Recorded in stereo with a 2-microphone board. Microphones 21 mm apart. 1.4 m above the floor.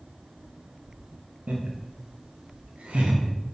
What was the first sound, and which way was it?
Laughter, 80° right.